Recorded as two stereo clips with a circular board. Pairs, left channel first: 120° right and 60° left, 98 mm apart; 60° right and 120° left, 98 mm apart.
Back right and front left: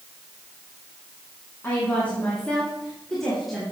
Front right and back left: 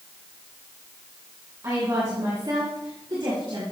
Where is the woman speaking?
175° left, 2.5 m; by 3.6 s 150° left, 3.5 m.